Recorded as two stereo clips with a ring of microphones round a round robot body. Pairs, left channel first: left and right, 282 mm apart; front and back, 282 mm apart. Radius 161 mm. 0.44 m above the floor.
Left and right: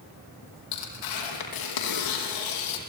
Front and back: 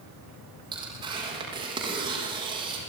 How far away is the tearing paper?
About 5 m.